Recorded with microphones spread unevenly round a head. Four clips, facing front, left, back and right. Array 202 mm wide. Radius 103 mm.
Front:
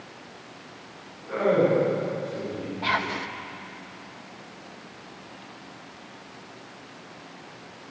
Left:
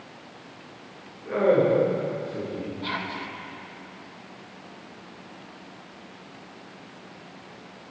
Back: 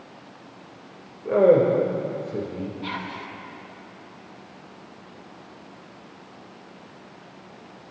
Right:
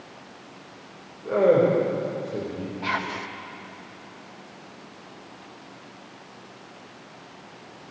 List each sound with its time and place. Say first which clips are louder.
1.2 s a man speaking: right 2 dB, back 5 dB; 160° right, 6 m; by 2.7 s 150° right, 7 m
2.8 s whispering: right 3 dB, front 5 dB; 25° right, 1.1 m